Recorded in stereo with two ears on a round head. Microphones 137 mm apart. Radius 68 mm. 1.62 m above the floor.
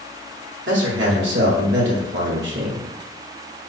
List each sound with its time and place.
0.7 s a man speaking: 85° right, 1.0 m